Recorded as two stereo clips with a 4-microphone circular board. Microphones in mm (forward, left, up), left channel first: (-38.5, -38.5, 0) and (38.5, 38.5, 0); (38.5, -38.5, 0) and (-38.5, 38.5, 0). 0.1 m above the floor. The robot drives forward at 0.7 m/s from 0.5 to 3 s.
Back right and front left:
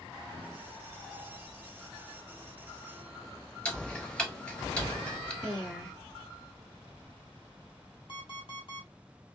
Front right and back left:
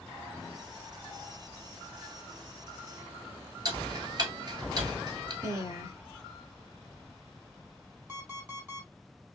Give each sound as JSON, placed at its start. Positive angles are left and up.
{"t": 3.6, "sound": "ticking", "azimuth_deg": 150, "distance_m": 1.2}
{"t": 5.4, "sound": "a woman speaking", "azimuth_deg": 145, "distance_m": 1.3}
{"t": 8.1, "sound": "an alarm clock", "azimuth_deg": -155, "distance_m": 2.0}